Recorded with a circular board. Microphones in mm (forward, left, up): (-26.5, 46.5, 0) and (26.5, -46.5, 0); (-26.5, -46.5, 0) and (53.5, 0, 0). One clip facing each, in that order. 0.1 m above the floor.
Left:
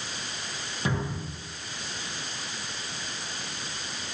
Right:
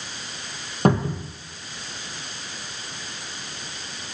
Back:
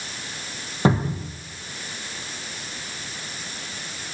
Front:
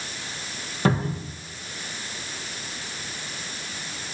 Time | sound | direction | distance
0.8 | a cupboard door | 85° right | 1.7 m